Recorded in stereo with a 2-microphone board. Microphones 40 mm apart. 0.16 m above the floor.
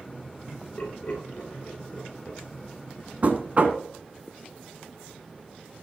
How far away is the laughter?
About 4 m.